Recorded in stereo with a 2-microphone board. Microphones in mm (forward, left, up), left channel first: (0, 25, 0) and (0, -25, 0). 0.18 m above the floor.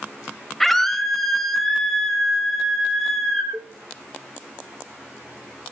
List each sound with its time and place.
0.6 s a scream: 5° left (ahead or behind), 3 m
3.5 s a cowbell: 45° right (ahead or behind), 3.5 m